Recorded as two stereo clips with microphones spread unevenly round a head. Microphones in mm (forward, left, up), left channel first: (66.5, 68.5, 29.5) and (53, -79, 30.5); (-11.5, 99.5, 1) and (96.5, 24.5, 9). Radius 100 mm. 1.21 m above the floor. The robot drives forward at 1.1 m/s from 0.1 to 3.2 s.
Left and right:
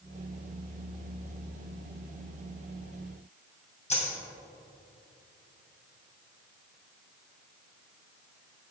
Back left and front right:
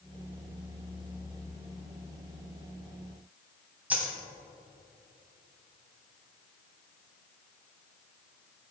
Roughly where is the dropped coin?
Ahead left.